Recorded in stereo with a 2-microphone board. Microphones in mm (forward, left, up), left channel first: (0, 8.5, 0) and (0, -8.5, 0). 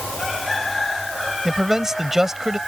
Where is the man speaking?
25° right (ahead or behind).